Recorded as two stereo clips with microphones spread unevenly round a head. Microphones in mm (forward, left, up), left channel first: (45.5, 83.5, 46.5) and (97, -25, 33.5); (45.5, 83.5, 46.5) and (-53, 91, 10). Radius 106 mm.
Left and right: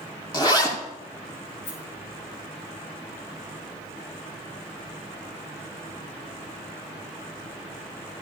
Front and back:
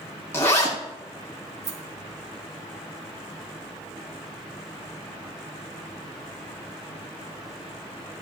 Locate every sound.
0.3 s a zipper: 60° left, 7.5 m
1.6 s a rattle: 160° left, 4.5 m